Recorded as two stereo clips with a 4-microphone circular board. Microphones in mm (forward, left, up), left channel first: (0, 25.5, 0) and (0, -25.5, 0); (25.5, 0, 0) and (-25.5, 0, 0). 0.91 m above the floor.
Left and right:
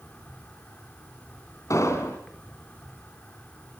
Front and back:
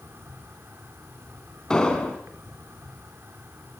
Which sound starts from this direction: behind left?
An insect, at 0.0 s.